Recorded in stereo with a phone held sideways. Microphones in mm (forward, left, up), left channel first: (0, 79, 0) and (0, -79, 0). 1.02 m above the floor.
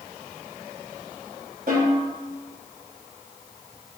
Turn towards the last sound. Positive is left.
turn(degrees=-70)  # may be behind; listen again after turning